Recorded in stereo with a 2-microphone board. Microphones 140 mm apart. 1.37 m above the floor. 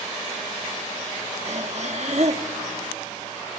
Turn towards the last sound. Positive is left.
turn(degrees=-55)  # may be behind; listen again after turning